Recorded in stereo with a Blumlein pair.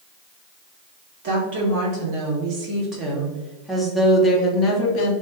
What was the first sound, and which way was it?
A woman speaking, 45° right.